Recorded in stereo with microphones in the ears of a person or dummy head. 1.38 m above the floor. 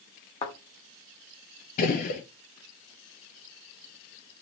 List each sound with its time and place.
0.4 s a thud: 25° left (ahead or behind), 1.2 m
1.8 s a gunshot: 50° left (ahead or behind), 1.3 m